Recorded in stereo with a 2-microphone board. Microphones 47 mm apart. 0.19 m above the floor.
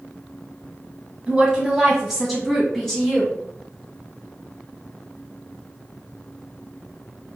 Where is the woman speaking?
15° right (ahead or behind), 1.4 m; by 3.4 s 15° left (ahead or behind), 2.0 m.